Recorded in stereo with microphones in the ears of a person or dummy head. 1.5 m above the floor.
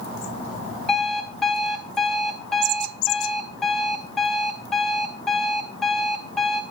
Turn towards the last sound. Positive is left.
turn(degrees=5)  # may be behind; listen again after turning